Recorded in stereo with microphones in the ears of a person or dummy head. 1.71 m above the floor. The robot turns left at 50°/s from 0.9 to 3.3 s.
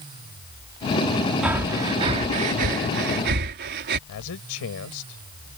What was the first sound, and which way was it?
Breathing, 15° right (ahead or behind).